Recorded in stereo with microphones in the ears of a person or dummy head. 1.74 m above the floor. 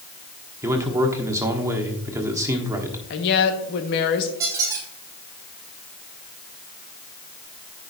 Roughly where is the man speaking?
Centre.